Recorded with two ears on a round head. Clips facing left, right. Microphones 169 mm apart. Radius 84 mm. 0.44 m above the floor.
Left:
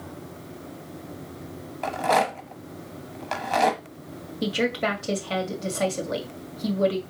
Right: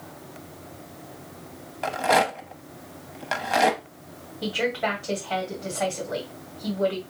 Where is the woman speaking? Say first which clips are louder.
Left 1 dB; 50° left (ahead or behind), 1.9 m.